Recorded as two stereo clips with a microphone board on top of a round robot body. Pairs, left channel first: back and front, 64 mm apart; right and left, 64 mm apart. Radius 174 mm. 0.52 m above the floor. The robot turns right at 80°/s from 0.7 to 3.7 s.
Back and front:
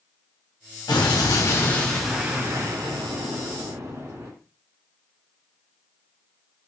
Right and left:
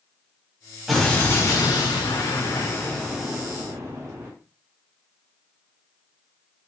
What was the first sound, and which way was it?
An explosion, straight behind.